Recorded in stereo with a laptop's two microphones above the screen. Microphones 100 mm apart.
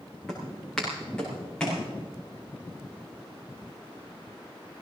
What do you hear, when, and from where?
0.3 s footsteps: 5° left (ahead or behind), 4.5 m; by 1.8 s 10° left (ahead or behind), 5 m